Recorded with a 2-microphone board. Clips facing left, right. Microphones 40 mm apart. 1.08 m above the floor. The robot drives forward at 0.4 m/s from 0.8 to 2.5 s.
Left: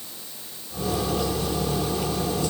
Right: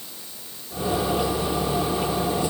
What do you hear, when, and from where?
Only background noise.